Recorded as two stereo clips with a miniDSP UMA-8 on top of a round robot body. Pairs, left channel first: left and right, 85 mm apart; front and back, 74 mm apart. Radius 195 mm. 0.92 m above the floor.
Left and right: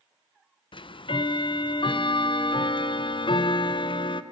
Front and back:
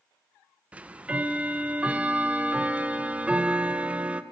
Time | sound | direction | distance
0.7 | ticking | 105° left | 0.6 m